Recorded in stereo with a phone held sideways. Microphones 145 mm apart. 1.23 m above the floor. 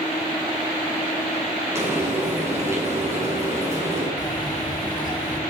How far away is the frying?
About 9 m.